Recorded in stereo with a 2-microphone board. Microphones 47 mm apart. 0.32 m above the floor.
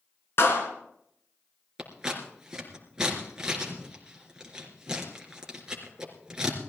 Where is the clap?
60° left (ahead or behind), 3 m.